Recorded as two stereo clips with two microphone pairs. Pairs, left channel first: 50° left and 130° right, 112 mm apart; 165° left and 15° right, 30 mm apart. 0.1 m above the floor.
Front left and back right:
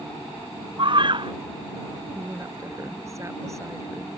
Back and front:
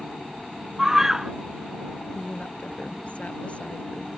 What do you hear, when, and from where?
0.8 s a scream: 90° right
2.1 s a woman speaking: straight behind